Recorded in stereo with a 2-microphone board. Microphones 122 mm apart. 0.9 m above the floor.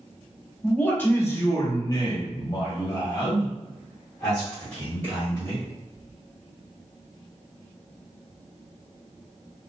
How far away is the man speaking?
About 1.0 m.